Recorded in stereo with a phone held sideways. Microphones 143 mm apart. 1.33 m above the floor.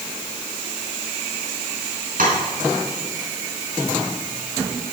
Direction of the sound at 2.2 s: 80° right.